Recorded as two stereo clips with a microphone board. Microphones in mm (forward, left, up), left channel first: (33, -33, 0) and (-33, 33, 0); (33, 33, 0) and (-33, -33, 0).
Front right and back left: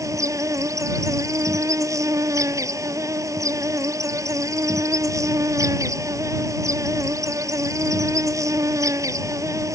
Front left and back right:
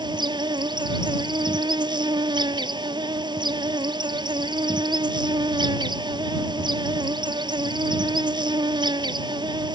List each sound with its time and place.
0.0 s an insect: 170° right